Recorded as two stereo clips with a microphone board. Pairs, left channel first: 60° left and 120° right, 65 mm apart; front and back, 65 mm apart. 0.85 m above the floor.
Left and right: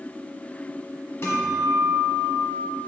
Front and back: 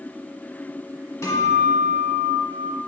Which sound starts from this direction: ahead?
A guitar, at 1.2 s.